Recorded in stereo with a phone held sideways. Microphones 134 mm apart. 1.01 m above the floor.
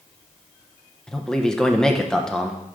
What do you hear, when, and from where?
1.1 s a man speaking: 5° left (ahead or behind), 0.8 m